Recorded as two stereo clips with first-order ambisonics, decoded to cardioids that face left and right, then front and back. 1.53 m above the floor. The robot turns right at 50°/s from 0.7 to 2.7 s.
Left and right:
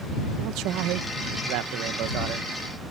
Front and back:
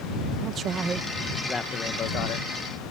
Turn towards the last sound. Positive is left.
turn(degrees=-20)